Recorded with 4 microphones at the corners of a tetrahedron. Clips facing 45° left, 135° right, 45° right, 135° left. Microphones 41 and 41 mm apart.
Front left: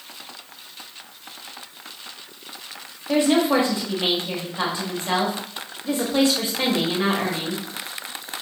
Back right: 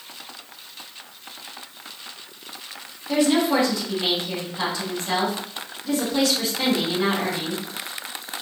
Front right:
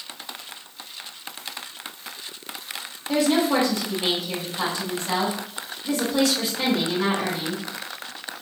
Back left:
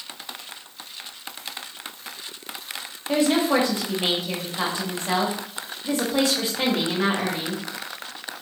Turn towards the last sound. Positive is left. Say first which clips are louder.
# front left 1 dB, even
turn(degrees=95)